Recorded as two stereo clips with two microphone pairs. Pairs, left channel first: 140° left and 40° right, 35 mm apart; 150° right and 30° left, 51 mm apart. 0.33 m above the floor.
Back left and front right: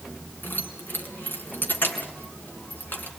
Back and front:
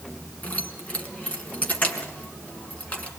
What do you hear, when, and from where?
0.4 s keys jangling: 150° left, 2.5 m